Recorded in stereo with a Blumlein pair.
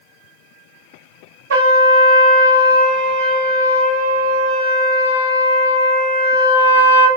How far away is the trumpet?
About 1.7 m.